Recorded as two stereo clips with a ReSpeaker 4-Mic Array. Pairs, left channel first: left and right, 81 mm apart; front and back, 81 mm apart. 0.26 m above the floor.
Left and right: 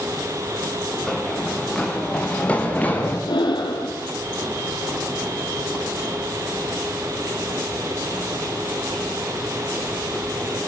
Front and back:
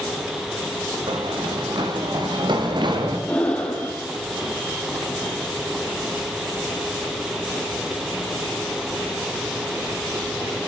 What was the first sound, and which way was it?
Running footsteps, 175° left.